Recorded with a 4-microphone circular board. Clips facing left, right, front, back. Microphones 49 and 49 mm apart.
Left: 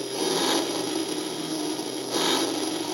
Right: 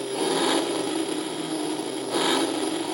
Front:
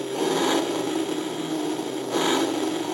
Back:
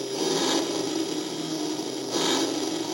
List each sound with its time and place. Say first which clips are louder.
0.0 s an engine running: right 2 dB, front 3 dB; 25° right, 0.9 m